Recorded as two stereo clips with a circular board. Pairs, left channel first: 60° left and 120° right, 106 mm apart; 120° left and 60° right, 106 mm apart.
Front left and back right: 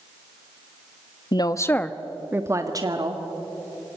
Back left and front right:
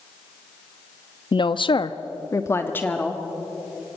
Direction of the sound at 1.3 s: 95° left.